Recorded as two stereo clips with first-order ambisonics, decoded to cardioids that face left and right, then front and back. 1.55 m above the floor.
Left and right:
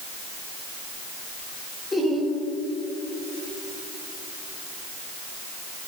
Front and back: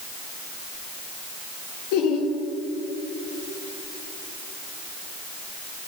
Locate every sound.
1.9 s laughter: 10° left, 1.8 m